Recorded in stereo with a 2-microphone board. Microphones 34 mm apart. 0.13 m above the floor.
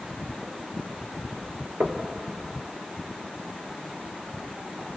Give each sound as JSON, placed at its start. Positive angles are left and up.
{"t": 1.8, "sound": "knocking", "side_deg": -60, "distance_m": 1.8}